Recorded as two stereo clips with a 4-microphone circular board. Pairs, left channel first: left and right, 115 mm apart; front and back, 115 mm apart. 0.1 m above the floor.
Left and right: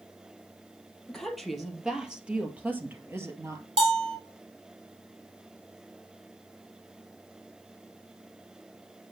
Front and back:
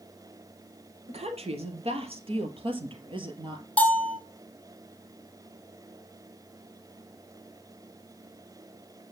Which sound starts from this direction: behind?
A woman speaking, at 1.1 s.